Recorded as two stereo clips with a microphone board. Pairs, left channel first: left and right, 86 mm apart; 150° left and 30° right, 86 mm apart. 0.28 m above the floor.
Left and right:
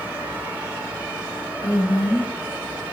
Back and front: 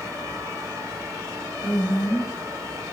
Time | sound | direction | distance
1.6 | a woman speaking | 125° left | 3.5 m